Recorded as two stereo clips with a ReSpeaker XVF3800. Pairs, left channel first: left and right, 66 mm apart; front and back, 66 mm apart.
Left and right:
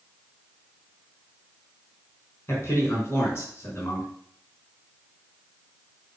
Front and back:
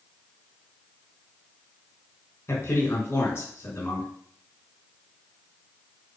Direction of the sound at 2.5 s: 45° left.